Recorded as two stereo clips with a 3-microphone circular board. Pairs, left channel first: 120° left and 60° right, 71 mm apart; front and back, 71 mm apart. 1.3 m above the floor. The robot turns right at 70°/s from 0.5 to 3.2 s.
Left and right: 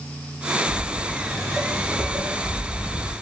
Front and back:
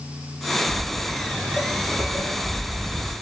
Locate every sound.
0.7 s footsteps: 145° left, 1.9 m; by 3.1 s 115° left, 2.0 m